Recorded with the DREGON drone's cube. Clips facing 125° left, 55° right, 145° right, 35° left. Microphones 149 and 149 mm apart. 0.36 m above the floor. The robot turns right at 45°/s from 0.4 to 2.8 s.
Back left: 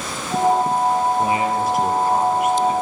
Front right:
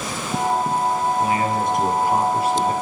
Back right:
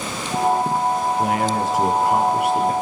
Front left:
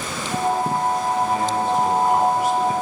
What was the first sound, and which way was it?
A man speaking, 175° right.